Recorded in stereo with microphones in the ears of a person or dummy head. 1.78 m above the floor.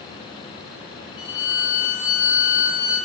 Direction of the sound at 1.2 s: 25° left (ahead or behind).